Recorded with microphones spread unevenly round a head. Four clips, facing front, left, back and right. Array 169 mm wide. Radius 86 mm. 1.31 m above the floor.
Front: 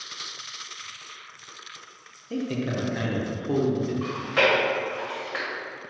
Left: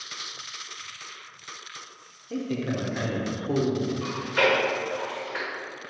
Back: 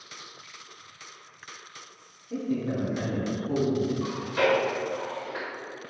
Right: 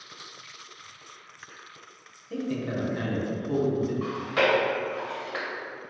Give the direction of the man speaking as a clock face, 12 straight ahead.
11 o'clock.